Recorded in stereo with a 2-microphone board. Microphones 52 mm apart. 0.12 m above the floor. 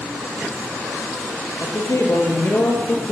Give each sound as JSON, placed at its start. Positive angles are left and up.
{"t": 1.6, "sound": "a man speaking", "side_deg": 65, "distance_m": 3.5}